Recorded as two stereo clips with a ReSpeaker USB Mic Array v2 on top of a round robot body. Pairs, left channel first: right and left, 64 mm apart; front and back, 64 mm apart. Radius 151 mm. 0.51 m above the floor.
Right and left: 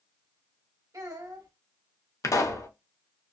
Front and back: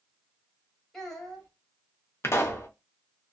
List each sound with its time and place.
0.9 s a child speaking: 80° left, 1.2 m
2.2 s a pop: 50° right, 0.6 m